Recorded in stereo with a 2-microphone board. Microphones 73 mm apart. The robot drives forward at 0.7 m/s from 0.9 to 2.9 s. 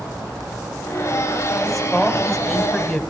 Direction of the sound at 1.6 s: Centre (ahead or behind).